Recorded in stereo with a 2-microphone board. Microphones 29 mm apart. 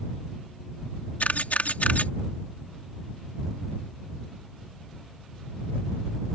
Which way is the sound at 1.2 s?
75° left (ahead or behind).